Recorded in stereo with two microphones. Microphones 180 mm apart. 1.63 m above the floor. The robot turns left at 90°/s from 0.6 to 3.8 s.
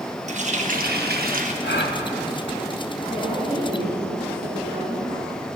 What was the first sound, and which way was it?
A running tap, 50° right.